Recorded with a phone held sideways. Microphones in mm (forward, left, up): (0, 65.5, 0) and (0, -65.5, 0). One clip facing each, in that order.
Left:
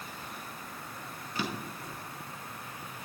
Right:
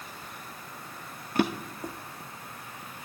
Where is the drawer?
55° right (ahead or behind), 0.9 m.